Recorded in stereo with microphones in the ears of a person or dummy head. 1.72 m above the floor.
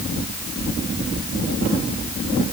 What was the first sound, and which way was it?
Only background noise.